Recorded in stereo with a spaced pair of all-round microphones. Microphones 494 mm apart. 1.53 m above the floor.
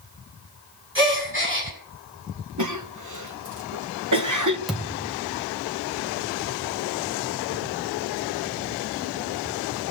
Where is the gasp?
25° right (ahead or behind), 7.5 m.